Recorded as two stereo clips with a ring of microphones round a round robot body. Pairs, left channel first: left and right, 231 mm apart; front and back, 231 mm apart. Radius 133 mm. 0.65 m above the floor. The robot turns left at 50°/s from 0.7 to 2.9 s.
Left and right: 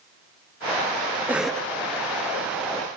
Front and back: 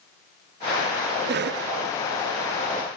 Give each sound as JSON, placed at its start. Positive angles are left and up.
{"t": 1.3, "sound": "a cough", "azimuth_deg": -170, "distance_m": 0.6}